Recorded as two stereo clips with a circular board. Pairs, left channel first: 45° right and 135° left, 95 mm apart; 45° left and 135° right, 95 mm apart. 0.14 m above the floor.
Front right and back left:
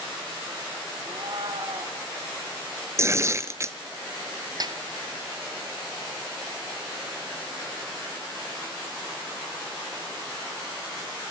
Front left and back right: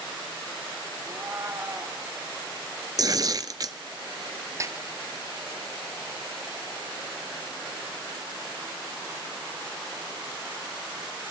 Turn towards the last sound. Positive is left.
turn(degrees=170)